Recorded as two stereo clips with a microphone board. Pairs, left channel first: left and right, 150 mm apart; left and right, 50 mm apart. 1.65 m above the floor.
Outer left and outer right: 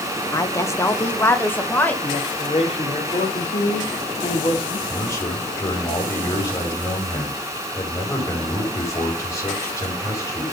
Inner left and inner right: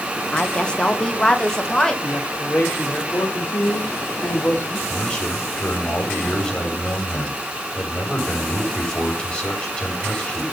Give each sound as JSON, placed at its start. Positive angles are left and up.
{"t": 0.3, "sound": "a woman speaking", "side_deg": 25, "distance_m": 1.0}
{"t": 2.0, "sound": "a man speaking", "side_deg": 40, "distance_m": 3.5}
{"t": 4.9, "sound": "a man speaking", "side_deg": 20, "distance_m": 5.0}